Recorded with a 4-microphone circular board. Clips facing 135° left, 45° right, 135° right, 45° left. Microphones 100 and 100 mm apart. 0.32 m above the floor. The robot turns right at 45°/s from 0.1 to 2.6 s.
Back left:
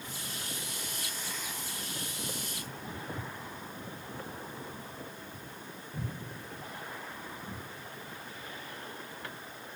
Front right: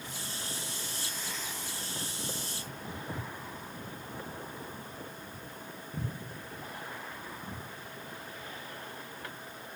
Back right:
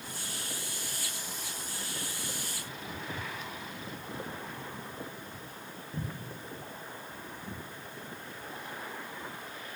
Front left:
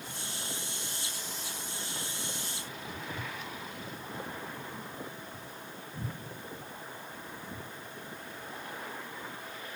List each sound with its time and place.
2.9 s footsteps: 45° right, 4 m; by 7.6 s 120° right, 4.5 m